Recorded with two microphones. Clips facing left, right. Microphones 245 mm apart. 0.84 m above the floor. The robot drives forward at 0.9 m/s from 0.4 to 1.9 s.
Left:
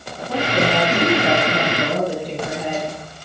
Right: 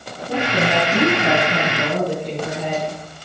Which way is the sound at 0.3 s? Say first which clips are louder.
Left 1 dB; 25° right (ahead or behind).